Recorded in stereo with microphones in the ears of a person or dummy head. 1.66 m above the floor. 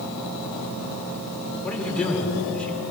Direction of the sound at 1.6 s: 5° left (ahead or behind).